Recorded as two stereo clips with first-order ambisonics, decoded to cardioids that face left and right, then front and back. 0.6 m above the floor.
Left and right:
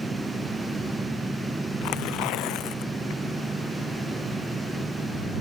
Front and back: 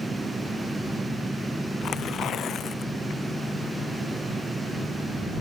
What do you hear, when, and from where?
1.8 s tearing paper: 55° left